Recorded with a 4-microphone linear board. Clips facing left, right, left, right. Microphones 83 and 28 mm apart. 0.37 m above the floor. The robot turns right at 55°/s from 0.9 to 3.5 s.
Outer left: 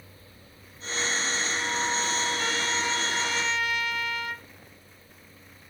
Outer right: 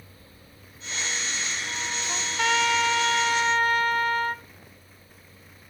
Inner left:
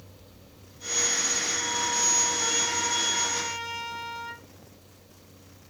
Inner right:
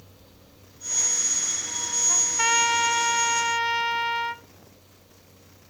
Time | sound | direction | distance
2.1 | a trumpet | 115° right | 0.7 m